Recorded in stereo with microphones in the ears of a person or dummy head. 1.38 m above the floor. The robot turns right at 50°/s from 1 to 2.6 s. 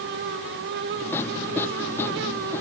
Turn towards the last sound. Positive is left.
No sound to turn to.